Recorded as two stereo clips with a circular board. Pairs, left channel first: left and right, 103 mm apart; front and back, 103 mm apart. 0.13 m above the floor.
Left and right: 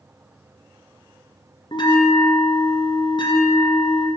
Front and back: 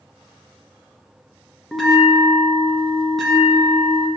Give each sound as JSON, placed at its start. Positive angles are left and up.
{"t": 1.7, "sound": "a bell", "azimuth_deg": 85, "distance_m": 2.0}